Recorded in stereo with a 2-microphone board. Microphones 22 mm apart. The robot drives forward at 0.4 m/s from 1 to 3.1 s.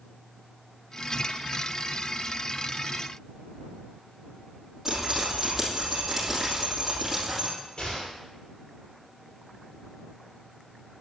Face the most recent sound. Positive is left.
turn(degrees=50)  # may be behind; listen again after turning